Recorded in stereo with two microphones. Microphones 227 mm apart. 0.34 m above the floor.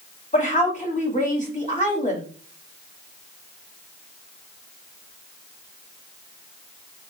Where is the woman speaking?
30° left (ahead or behind), 1.6 m.